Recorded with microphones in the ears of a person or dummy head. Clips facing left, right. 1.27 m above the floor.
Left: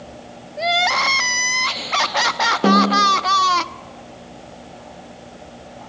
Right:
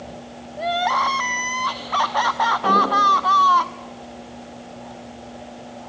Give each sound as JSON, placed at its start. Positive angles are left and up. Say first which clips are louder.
{"t": 0.6, "sound": "crying", "louder": "left 1 dB", "side_deg": 35, "distance_m": 0.9}
{"t": 2.6, "sound": "a snare drum", "louder": "left 7 dB", "side_deg": 70, "distance_m": 8.0}